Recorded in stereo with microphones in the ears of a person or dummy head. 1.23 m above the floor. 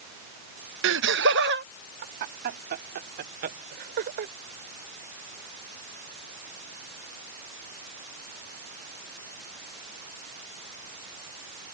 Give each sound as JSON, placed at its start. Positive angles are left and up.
{"t": 0.8, "sound": "laughter", "side_deg": -65}